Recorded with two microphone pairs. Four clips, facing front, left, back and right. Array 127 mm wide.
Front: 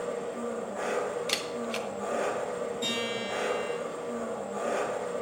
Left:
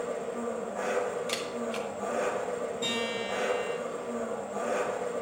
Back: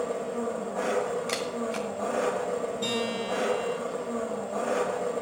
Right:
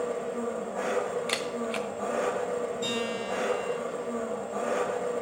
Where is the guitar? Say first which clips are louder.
Right 1 dB, back 3 dB; 170° left, 6 m.